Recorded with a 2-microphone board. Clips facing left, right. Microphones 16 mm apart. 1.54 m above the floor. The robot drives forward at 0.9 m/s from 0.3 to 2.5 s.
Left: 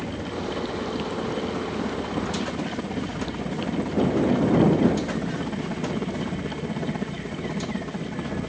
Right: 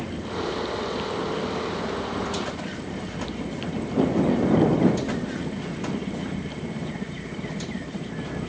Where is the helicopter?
65° left (ahead or behind); by 8.5 s 25° left (ahead or behind).